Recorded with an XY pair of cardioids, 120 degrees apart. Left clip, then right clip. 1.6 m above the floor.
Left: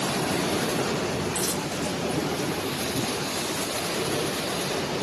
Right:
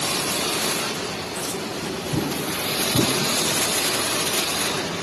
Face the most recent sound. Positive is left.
turn(degrees=50)